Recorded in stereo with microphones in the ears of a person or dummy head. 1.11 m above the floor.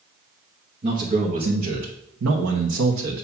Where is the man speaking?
35° right (ahead or behind), 1.4 m; by 3.2 s 65° right (ahead or behind), 1.3 m.